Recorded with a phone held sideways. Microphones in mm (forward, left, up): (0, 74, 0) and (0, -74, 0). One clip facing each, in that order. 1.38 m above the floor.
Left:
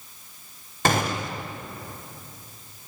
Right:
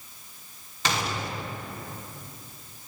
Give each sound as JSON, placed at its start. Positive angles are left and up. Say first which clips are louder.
{"t": 0.8, "sound": "a gunshot", "louder": "left 5 dB", "side_deg": 55, "distance_m": 0.6}